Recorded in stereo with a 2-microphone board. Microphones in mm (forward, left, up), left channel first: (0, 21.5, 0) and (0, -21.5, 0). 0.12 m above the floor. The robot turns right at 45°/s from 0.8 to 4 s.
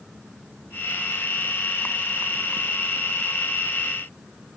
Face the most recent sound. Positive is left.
No sound to turn to.